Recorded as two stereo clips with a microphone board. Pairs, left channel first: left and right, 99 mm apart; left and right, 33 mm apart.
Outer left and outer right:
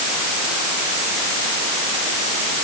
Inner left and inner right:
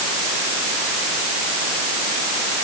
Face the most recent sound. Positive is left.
No sound to turn to.